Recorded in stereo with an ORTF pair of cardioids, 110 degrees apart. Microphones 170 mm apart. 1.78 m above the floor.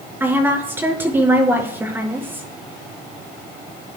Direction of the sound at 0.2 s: 10° right.